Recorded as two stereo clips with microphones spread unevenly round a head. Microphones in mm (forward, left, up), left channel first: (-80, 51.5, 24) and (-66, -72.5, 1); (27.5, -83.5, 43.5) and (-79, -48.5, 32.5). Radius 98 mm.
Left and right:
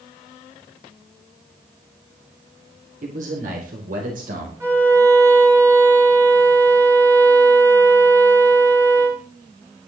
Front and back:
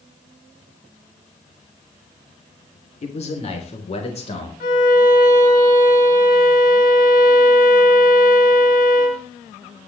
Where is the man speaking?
45° right, 3 m; by 4.5 s 50° right, 4 m.